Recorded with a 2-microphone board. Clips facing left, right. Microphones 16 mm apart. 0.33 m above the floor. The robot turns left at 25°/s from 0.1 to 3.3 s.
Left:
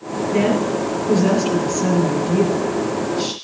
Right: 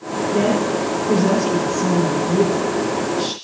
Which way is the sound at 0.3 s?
100° left.